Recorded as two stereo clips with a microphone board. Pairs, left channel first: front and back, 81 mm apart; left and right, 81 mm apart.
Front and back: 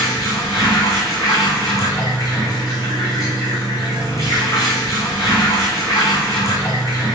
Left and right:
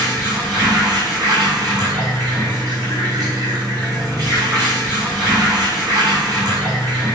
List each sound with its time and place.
0.0 s running water: 50° right, 5 m